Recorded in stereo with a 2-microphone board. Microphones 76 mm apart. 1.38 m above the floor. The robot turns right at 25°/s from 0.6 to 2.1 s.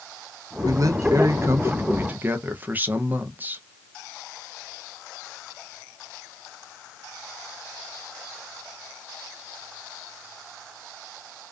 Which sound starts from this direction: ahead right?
A man speaking, at 0.6 s.